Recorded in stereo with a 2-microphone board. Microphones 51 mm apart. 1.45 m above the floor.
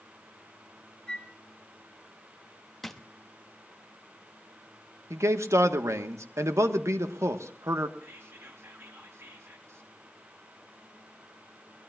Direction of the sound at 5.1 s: 70° right (ahead or behind).